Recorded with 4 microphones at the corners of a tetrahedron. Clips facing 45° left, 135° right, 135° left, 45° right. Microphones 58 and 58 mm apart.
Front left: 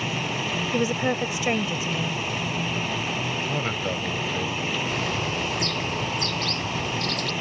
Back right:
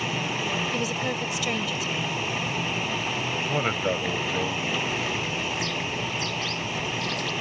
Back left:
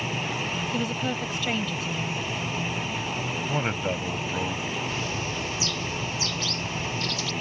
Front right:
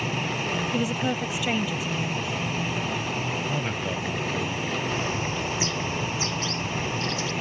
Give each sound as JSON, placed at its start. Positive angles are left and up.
{"t": 0.7, "sound": "a woman speaking", "azimuth_deg": 30}
{"t": 3.5, "sound": "a man speaking", "azimuth_deg": 165}
{"t": 4.8, "sound": "a bird", "azimuth_deg": 15}